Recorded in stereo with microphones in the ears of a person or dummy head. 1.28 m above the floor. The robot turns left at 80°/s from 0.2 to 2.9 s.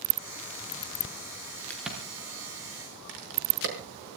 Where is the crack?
10° left (ahead or behind), 4.5 m; by 3.8 s 80° right, 4.5 m.